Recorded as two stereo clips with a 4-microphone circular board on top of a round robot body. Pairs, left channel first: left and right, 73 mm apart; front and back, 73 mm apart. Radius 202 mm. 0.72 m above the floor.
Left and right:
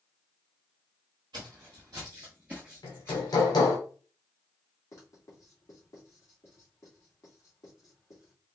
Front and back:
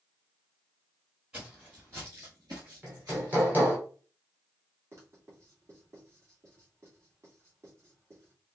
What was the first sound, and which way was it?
Footsteps, 105° right.